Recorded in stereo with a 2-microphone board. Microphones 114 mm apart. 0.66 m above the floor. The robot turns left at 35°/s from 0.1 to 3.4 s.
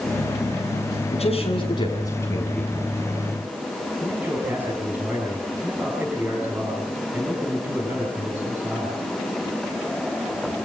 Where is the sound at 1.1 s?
65° left, 6.5 m; by 2.9 s straight ahead, 6.5 m.